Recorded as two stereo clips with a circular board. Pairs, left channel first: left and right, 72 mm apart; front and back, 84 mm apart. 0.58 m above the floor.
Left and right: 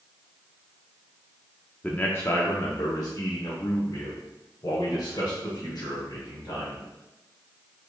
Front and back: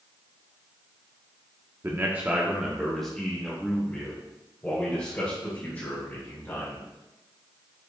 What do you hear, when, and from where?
1.8 s a man speaking: 145° left, 0.7 m; by 6.8 s 60° left, 3 m